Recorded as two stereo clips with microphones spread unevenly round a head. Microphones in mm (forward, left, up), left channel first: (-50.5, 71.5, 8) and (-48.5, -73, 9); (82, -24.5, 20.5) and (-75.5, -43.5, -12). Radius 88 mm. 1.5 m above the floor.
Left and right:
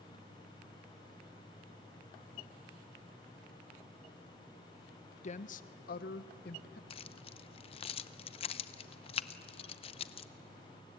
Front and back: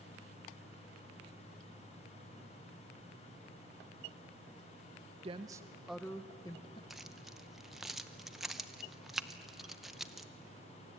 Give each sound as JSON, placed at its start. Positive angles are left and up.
{"t": 5.2, "sound": "a woman speaking", "azimuth_deg": 125, "distance_m": 0.8}
{"t": 6.9, "sound": "keys jangling", "azimuth_deg": 80, "distance_m": 0.6}